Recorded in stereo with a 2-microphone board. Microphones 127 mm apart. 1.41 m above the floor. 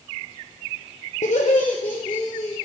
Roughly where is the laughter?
Left.